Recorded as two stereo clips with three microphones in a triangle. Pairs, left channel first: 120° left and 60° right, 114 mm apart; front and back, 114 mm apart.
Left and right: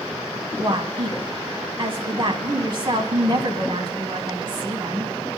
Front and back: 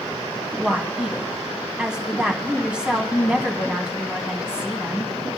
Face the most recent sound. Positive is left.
turn(degrees=-100)